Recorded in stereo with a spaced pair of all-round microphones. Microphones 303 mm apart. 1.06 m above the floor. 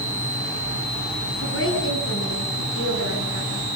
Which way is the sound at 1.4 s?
45° left (ahead or behind).